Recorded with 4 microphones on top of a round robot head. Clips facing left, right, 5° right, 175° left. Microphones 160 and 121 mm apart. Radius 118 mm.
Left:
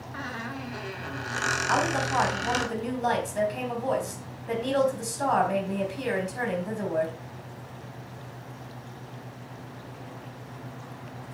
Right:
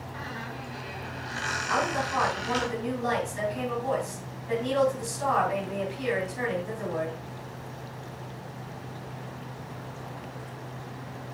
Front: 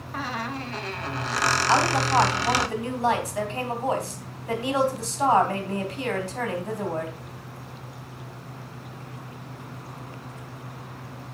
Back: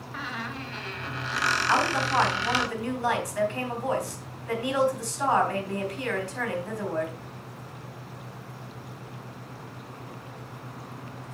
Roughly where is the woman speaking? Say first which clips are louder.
Left 2 dB, front 3 dB; ahead left.